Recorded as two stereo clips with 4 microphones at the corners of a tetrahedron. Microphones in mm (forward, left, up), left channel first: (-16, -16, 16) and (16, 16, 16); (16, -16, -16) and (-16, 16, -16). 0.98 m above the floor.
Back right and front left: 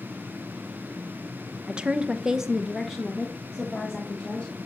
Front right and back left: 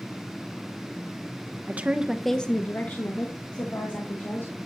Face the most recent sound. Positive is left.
turn(degrees=-55)